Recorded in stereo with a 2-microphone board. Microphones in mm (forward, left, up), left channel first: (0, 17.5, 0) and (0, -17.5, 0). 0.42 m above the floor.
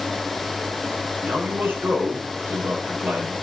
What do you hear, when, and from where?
1.2 s a man speaking: 80° right, 10 m